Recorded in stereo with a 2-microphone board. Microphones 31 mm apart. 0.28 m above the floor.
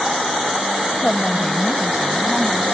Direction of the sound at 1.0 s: 10° left (ahead or behind).